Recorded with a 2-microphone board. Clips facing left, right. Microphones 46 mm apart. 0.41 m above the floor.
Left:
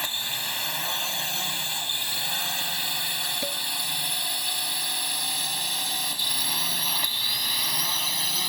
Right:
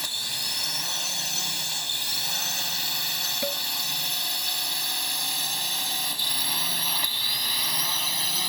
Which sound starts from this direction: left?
A drone, at 0.0 s.